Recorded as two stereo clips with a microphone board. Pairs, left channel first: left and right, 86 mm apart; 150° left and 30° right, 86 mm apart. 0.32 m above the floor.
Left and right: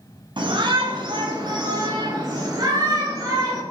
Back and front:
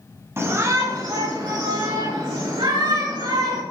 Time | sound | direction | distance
0.4 | a shout | 85° right | 2.5 m